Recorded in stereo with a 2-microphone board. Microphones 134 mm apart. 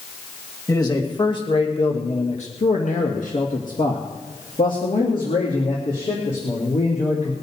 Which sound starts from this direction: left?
A man speaking, at 0.7 s.